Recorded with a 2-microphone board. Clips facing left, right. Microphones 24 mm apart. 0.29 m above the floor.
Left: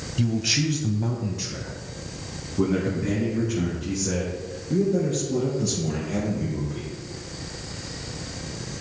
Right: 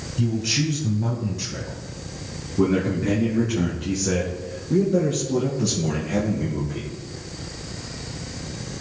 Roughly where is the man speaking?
Left.